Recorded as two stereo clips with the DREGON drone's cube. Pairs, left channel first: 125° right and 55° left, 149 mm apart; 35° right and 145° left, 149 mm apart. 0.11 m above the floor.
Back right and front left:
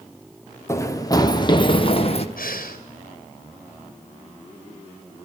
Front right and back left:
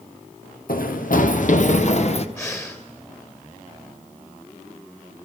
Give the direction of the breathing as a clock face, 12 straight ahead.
4 o'clock.